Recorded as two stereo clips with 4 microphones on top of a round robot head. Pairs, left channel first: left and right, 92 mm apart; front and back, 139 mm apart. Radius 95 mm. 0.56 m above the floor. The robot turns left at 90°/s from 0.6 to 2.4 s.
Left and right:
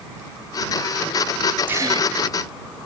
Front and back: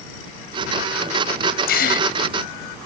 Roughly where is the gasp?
Ahead.